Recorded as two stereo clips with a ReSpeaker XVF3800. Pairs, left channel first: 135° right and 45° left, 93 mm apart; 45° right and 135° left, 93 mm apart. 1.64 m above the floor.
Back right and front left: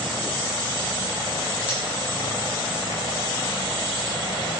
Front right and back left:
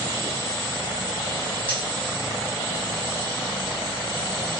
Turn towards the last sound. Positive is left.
turn(degrees=65)